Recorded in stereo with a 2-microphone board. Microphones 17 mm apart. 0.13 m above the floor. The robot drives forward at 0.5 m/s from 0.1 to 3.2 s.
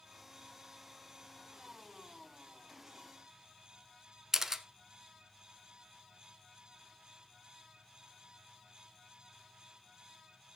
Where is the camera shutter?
30° right (ahead or behind), 0.6 m.